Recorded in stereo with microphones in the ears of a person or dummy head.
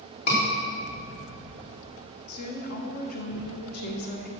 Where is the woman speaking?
50° left (ahead or behind), 1.4 m.